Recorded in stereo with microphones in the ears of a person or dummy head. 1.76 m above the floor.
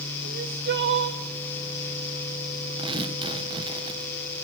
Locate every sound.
0.2 s crying: 55° right (ahead or behind), 1.6 m
2.8 s tearing paper: 25° right (ahead or behind), 1.9 m